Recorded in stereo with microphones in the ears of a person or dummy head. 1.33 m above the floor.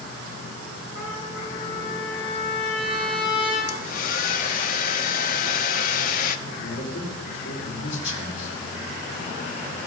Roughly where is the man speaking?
Left.